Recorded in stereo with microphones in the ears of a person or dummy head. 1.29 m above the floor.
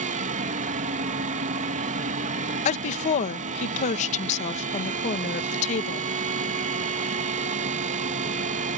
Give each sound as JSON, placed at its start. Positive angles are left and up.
{"t": 0.0, "sound": "a fan", "side_deg": -40}
{"t": 2.6, "sound": "a woman speaking", "side_deg": 40}